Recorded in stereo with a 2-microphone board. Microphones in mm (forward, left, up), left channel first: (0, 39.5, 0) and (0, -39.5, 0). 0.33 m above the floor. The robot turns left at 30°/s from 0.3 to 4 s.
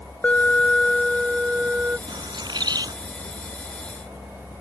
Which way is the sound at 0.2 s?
25° left.